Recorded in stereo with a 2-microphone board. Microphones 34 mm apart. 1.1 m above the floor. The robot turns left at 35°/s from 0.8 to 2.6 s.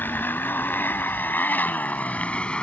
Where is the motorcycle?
80° left; by 2.6 s 30° left (ahead or behind).